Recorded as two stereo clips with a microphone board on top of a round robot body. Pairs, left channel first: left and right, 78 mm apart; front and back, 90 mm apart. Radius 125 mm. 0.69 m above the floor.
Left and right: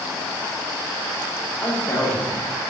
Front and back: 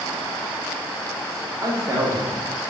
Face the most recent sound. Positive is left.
turn(degrees=145)